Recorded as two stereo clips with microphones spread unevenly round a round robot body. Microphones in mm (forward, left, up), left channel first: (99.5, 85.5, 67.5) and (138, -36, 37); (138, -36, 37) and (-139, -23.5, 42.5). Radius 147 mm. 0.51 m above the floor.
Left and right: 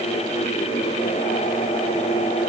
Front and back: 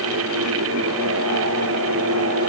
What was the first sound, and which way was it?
Only background noise.